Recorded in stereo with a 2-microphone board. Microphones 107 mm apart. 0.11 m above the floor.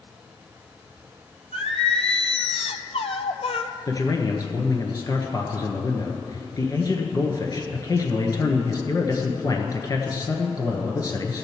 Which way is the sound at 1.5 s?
70° left (ahead or behind).